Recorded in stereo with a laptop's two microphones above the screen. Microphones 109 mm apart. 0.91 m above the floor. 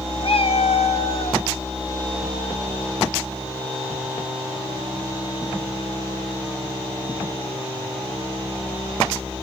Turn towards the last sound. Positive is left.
turn(degrees=55)  # may be behind; listen again after turning